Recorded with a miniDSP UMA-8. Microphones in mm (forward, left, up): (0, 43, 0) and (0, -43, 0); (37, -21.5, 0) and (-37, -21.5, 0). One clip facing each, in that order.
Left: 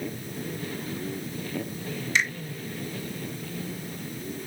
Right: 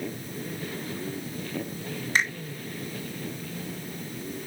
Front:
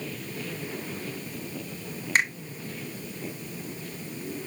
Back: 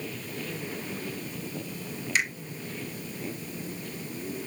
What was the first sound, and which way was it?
A finger snap, 45° right.